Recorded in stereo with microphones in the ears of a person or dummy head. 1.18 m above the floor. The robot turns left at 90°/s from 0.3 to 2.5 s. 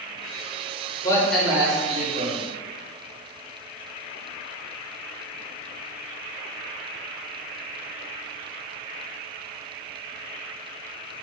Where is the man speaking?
25° left, 0.7 m; by 2.4 s 100° right, 0.7 m.